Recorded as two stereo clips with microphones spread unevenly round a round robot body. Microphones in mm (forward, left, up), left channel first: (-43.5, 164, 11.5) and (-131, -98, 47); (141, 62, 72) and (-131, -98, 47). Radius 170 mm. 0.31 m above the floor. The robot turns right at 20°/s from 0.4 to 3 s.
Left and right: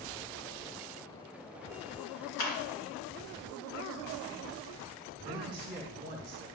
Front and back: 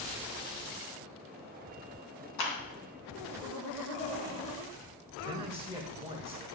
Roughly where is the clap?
Ahead left.